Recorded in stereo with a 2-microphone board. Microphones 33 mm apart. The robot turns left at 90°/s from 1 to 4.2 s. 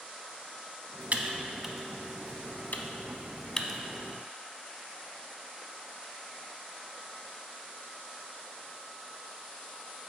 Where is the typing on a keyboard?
50° right (ahead or behind), 0.6 m; by 3.8 s 5° right (ahead or behind), 0.6 m.